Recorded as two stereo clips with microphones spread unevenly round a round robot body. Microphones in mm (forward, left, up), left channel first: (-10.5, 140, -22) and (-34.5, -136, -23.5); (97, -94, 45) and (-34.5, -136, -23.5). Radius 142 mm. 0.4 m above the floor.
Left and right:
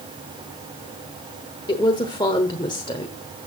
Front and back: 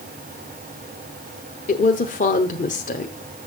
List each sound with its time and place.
1.7 s a woman speaking: 30° left, 1.0 m